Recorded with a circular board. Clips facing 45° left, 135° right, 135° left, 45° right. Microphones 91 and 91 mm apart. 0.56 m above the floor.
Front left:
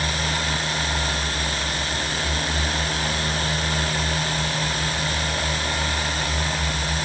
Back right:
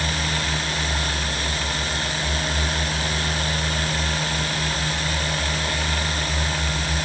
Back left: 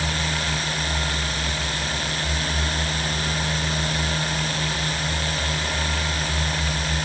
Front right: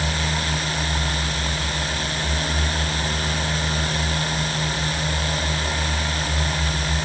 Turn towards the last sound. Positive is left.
No sound to turn to.